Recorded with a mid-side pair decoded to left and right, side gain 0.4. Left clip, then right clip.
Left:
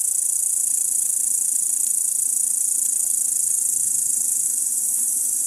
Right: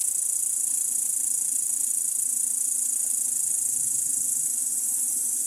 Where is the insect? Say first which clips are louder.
Left 4 dB; 50° left, 1.0 m.